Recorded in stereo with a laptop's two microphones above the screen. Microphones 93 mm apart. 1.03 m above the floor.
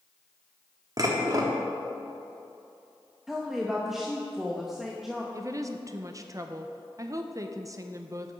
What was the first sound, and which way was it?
Dishes clattering, 40° right (ahead or behind).